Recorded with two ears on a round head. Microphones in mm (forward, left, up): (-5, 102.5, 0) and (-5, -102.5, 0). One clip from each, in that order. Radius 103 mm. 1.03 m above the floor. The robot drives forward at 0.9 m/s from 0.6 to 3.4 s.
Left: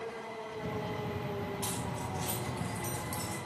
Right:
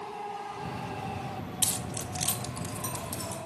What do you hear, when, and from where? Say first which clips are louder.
1.6 s keys jangling: right 3 dB; 70° right (ahead or behind), 0.5 m; by 3.4 s 20° right (ahead or behind), 1.5 m